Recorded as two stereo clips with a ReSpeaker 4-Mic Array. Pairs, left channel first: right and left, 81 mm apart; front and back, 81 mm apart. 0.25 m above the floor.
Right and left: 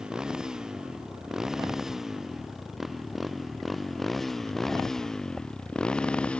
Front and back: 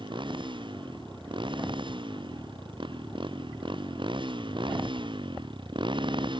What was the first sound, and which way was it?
A motorcycle, 170° left.